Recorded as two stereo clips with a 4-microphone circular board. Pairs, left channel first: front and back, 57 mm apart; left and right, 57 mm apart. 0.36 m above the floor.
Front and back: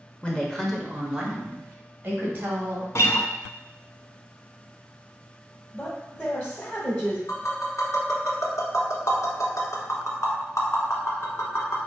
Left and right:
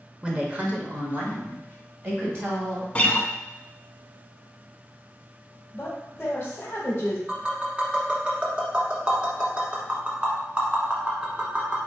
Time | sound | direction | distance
0.2 | a woman speaking | 45° right | 0.9 m
3.0 | a guitar | 25° left | 0.5 m
5.7 | a woman speaking | 50° left | 1.4 m
7.3 | tapping | 20° right | 1.4 m